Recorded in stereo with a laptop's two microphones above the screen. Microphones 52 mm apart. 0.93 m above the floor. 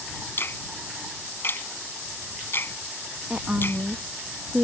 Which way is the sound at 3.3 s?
20° right (ahead or behind).